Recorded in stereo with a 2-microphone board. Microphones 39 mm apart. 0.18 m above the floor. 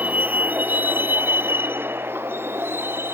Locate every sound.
0.0 s a vehicle: 45° right (ahead or behind); by 3.1 s 90° right